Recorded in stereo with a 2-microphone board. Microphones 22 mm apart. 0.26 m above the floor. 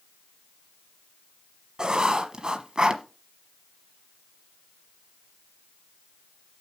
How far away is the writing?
About 1.1 m.